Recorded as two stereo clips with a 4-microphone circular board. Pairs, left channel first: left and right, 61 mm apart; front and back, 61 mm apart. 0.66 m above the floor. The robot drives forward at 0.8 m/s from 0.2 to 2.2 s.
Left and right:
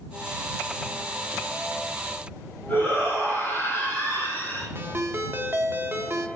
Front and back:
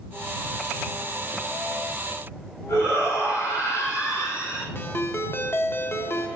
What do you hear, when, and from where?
2.7 s a shout: 35° left, 5 m
4.8 s a ringtone: 45° right, 1.1 m